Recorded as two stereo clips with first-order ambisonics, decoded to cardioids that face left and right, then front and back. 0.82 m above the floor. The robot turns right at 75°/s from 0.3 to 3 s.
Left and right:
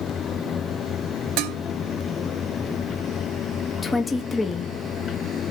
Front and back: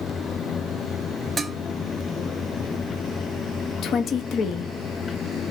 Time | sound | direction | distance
1.4 | dishes clattering | 105° right | 0.6 m
3.8 | a woman speaking | 15° left | 0.6 m